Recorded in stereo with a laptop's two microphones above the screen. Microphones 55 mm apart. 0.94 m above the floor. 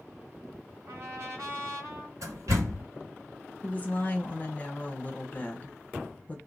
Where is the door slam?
85° right, 1.3 m.